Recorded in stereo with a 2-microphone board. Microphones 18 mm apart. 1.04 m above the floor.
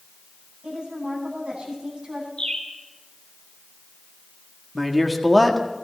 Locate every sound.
0.6 s a woman speaking: 65° right (ahead or behind), 9 m
2.4 s a bird: 70° left (ahead or behind), 4.5 m
4.8 s a man speaking: 10° right (ahead or behind), 1.6 m